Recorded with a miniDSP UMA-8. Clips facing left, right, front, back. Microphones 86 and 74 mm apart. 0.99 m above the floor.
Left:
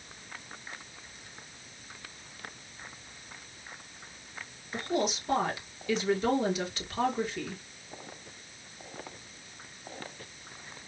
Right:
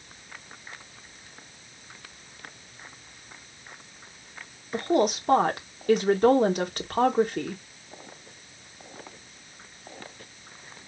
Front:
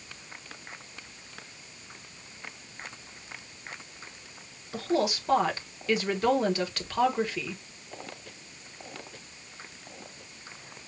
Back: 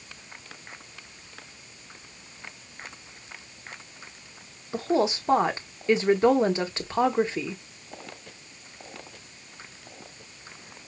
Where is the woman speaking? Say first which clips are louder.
Right 7 dB, back 3 dB; 120° right, 1.5 m.